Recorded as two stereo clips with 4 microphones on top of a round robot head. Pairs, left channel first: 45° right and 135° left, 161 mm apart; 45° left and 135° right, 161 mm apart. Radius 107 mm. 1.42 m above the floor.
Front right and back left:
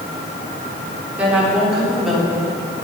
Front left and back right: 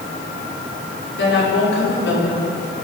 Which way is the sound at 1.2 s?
50° left.